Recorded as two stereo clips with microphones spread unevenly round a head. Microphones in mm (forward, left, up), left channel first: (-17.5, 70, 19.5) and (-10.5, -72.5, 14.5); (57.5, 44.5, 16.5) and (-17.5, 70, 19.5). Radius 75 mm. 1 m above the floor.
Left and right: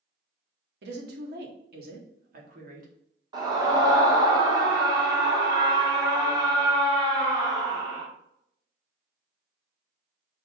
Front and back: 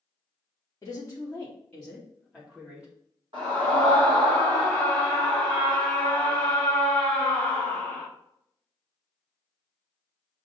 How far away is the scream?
About 2.5 m.